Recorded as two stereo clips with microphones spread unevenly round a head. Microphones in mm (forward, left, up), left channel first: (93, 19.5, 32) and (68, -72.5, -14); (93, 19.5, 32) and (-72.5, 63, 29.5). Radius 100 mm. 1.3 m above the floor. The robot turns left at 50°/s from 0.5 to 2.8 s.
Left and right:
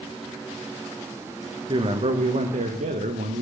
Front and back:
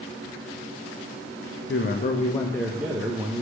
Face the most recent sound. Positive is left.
turn(degrees=-110)